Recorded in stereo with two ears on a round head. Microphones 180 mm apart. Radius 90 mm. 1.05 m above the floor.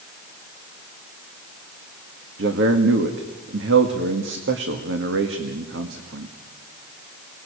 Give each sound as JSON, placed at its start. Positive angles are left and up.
{"t": 2.4, "sound": "a man speaking", "side_deg": -65, "distance_m": 1.9}